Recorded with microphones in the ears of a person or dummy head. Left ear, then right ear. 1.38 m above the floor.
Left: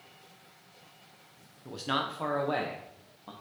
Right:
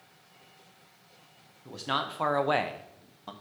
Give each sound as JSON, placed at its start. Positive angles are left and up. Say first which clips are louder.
{"t": 1.6, "sound": "a man speaking", "louder": "right 1 dB", "side_deg": 5, "distance_m": 0.7}